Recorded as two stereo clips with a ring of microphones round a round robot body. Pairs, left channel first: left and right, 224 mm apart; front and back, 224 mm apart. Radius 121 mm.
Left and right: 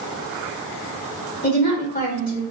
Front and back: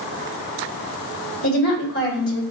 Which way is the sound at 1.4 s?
45° left.